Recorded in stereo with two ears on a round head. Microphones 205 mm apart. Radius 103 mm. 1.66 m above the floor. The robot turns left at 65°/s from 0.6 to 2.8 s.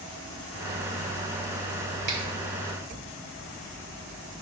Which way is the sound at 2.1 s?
50° right (ahead or behind).